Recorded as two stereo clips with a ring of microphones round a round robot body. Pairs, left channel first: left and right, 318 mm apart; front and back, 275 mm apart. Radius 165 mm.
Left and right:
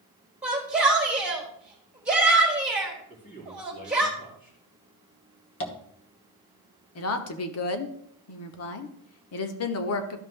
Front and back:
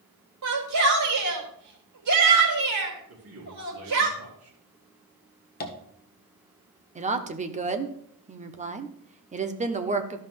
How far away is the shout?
About 3.5 m.